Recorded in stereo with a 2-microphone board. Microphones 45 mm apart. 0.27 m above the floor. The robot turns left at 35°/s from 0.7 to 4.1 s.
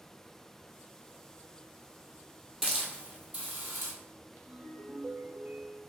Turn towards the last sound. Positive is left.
turn(degrees=-40)  # may be behind; listen again after turning